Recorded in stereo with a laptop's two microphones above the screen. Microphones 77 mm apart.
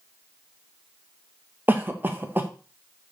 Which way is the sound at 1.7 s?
25° right (ahead or behind).